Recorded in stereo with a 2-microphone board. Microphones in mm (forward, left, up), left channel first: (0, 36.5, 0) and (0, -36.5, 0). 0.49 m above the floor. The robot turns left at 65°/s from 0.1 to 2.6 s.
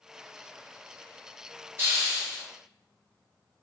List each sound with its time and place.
1.8 s a hiss: 140° right, 1.0 m; by 2.4 s 175° left, 1.0 m